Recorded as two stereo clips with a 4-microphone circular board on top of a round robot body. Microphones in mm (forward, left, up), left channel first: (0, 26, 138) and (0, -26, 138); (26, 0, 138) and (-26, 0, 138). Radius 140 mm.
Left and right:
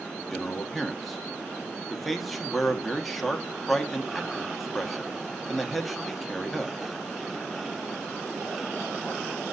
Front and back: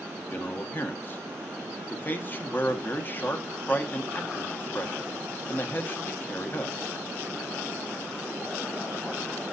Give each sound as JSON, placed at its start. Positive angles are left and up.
{"t": 0.3, "sound": "a man speaking", "azimuth_deg": 5, "distance_m": 1.6}